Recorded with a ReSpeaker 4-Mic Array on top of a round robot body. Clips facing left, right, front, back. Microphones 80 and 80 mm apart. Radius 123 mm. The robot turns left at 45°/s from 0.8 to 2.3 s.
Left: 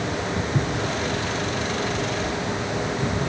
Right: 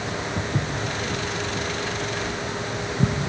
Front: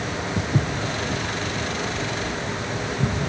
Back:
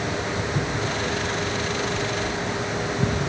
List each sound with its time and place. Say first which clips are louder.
0.4 s footsteps: left 2 dB, front 1 dB; 5° left, 1.1 m; by 3.1 s 95° right, 3 m